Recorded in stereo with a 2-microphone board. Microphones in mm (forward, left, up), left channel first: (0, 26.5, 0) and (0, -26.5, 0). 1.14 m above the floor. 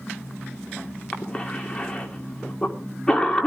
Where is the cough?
15° left (ahead or behind), 3 m.